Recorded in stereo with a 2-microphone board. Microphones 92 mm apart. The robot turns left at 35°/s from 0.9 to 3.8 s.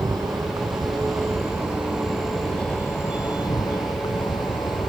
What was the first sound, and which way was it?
An insect, 135° right.